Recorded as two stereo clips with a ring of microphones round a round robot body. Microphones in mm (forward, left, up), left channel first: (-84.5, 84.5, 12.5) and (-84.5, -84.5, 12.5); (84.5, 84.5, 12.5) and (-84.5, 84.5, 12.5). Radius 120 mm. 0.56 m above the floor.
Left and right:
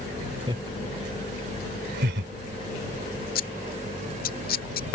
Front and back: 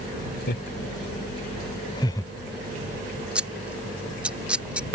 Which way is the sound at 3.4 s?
95° left.